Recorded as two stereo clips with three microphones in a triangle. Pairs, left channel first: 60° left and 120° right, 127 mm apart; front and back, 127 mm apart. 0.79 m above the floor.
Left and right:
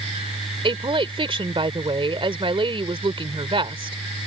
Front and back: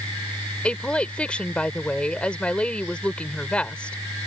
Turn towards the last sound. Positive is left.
turn(degrees=-80)